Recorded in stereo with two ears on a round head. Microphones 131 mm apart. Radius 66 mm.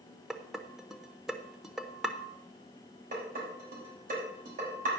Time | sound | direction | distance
0.3 | dishes clattering | 5° right (ahead or behind) | 0.7 m
3.1 | dishes clattering | 60° right (ahead or behind) | 4.5 m